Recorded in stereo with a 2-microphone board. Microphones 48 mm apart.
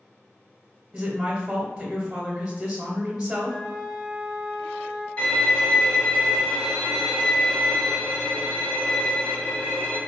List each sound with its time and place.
0.9 s a woman speaking: 10° right (ahead or behind), 1.0 m
3.5 s a flute: 20° left (ahead or behind), 1.4 m
5.2 s a violin: 25° left (ahead or behind), 1.9 m